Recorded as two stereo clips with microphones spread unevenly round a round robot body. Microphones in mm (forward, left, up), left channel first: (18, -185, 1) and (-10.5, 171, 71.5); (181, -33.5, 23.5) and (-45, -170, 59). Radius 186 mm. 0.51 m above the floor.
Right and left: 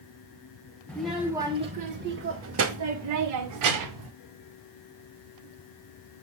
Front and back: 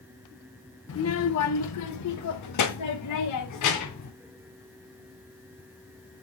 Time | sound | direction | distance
0.9 | a child speaking | straight ahead | 1.4 m